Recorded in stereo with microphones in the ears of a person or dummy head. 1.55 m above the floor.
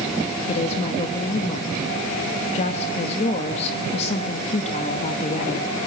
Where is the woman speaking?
40° left (ahead or behind), 2 m.